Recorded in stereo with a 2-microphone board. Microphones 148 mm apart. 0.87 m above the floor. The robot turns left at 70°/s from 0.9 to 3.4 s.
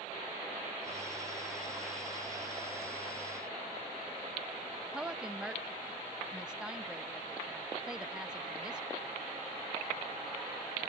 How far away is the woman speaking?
About 0.5 m.